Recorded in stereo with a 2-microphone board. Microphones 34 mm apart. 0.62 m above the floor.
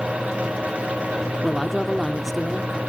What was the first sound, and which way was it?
A woman speaking, centre (ahead or behind).